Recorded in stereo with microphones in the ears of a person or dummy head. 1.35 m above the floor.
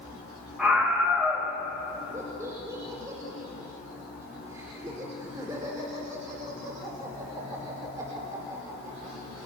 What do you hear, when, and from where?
0.6 s a scream: centre (ahead or behind), 3.5 m
2.1 s laughter: 20° right (ahead or behind), 5 m